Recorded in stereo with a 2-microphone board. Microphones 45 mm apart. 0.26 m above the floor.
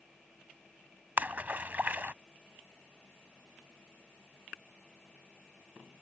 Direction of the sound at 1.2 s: 40° right (ahead or behind).